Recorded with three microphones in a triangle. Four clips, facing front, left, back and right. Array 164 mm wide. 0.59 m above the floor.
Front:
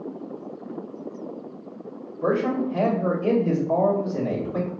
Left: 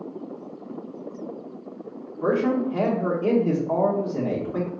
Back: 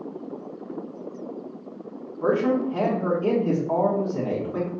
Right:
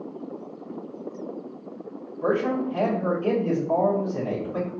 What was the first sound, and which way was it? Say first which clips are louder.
A man speaking: left 2 dB, back 1 dB; 140° left.